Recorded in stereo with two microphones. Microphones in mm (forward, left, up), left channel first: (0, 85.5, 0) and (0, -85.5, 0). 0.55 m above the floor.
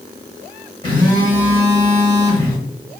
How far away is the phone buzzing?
About 1.0 m.